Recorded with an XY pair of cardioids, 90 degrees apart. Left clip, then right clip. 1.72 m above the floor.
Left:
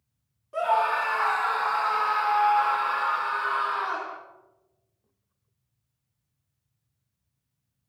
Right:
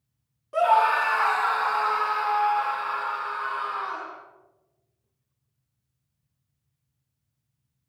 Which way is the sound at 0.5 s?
45° right.